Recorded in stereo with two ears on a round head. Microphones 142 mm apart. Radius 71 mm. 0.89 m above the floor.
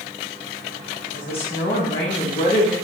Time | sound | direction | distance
1.1 | a woman speaking | 35° left (ahead or behind) | 1.4 m